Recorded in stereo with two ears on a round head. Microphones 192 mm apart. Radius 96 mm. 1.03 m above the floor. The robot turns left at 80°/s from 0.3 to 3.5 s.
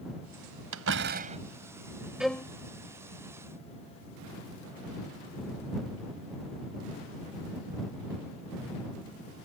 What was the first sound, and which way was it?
A door slam, 100° right.